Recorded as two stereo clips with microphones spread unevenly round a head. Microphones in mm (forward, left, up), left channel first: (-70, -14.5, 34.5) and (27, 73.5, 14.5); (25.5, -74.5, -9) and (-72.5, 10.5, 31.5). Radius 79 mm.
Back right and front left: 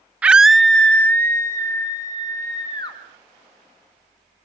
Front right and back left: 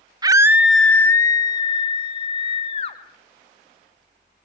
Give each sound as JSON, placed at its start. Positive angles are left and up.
{"t": 0.2, "sound": "a scream", "azimuth_deg": 75, "distance_m": 0.5}